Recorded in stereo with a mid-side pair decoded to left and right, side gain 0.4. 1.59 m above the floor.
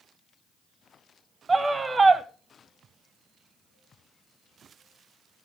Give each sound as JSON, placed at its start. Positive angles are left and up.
{"t": 1.5, "sound": "a scream", "azimuth_deg": -30, "distance_m": 1.8}